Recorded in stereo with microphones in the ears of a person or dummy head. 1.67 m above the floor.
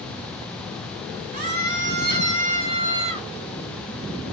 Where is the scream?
45° right (ahead or behind), 2 m; by 3.3 s 35° right (ahead or behind), 3 m.